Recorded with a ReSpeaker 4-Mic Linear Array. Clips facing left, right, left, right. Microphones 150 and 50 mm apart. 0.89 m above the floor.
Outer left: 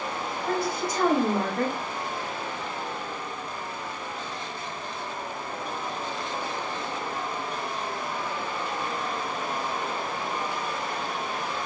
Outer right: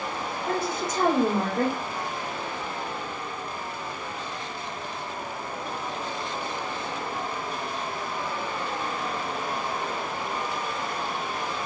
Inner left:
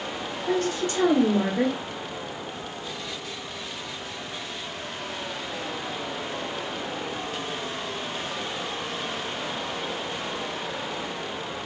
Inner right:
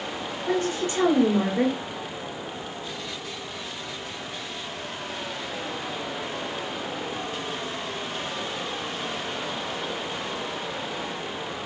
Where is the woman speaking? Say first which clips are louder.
Outer left 1 dB, even; 25° right (ahead or behind), 2 m.